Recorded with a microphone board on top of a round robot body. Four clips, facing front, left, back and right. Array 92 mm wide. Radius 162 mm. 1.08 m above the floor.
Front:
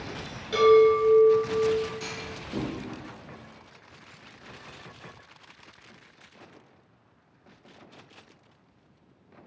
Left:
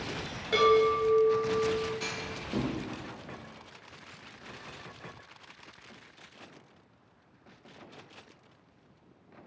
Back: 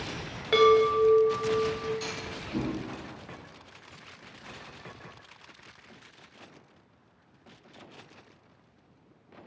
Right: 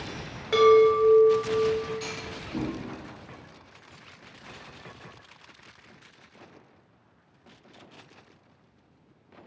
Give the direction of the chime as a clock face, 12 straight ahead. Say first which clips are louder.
Right 6 dB, front 3 dB; 5 o'clock.